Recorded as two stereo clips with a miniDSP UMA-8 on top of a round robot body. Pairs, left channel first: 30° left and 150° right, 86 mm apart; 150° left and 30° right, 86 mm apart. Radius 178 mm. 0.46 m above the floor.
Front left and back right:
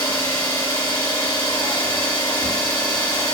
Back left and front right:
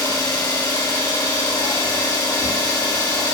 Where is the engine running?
105° left, 2 m.